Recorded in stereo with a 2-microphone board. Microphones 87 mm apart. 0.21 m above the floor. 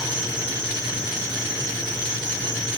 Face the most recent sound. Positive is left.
turn(degrees=-60)  # may be behind; listen again after turning